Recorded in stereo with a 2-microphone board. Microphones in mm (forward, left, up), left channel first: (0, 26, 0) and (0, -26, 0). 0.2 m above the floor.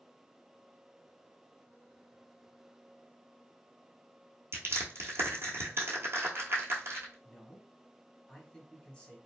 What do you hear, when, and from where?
4.5 s crushing: 55° right (ahead or behind), 0.8 m
7.2 s a man speaking: 20° left (ahead or behind), 1.0 m